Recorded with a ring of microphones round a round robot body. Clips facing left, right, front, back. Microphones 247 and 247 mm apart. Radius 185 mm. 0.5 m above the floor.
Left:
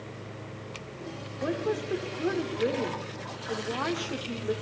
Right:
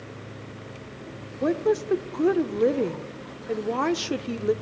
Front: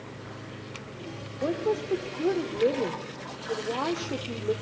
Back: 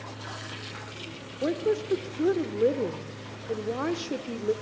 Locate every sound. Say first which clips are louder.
1.4 s a woman speaking: right 7 dB, back 1 dB; 110° right, 1.4 m